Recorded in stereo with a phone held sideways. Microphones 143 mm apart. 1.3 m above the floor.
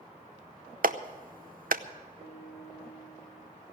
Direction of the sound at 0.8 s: 75° right (ahead or behind).